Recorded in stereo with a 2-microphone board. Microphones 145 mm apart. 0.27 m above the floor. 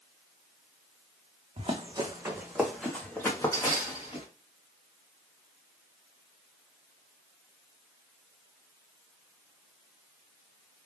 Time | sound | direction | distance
1.6 | running footsteps | 40° right (ahead or behind) | 1.1 m